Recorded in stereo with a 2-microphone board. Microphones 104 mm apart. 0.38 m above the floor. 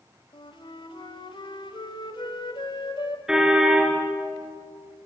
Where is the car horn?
5° right (ahead or behind), 2.5 m.